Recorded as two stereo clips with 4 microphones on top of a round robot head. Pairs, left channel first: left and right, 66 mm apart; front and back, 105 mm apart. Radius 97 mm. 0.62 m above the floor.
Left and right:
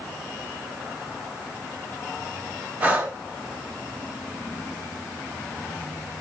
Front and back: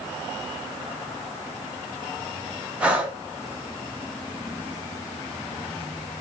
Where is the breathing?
115° right, 0.7 m.